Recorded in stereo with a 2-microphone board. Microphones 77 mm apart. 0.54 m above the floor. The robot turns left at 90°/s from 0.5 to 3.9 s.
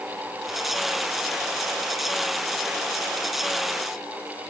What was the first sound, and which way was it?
Only background noise.